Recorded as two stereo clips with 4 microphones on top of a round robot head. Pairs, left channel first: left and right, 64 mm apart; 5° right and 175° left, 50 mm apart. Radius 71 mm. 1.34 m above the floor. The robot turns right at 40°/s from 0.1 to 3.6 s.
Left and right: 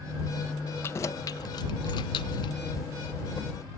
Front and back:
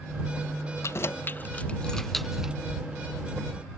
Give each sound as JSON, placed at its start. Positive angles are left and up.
{"t": 0.8, "sound": "keys jangling", "azimuth_deg": 30}